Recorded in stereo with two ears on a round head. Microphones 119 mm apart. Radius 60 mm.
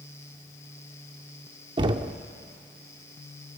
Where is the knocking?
35° right (ahead or behind), 0.7 m.